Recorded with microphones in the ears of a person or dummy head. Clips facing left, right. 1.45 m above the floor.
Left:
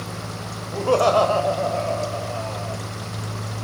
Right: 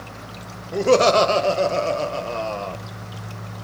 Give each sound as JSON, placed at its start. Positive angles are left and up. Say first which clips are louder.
{"t": 0.7, "sound": "laughter", "louder": "right 2 dB", "side_deg": -25, "distance_m": 1.7}